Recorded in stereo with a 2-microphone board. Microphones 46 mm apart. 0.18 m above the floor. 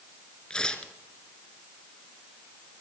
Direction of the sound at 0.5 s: 15° left (ahead or behind).